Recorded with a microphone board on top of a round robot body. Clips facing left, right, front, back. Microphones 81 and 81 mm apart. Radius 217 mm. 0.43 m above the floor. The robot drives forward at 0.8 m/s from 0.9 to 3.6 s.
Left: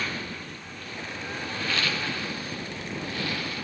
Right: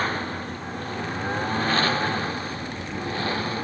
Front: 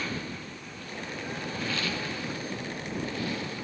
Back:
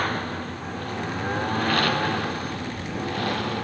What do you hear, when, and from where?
0.0 s a lawn mower: 140° right; by 3.6 s 145° right